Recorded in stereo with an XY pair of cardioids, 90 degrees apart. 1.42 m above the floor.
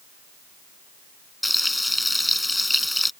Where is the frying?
10° left.